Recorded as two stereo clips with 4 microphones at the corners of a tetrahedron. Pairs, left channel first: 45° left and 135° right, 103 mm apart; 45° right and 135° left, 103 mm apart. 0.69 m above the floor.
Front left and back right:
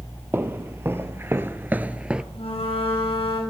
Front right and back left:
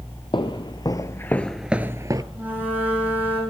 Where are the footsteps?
70° right, 1.2 m; by 2.2 s 150° left, 0.8 m.